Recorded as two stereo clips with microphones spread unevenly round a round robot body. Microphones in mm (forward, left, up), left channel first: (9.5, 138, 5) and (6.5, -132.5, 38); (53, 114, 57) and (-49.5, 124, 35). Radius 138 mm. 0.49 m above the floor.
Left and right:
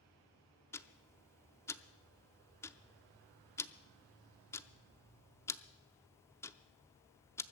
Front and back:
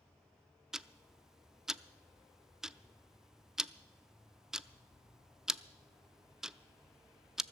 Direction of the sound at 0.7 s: 135° left.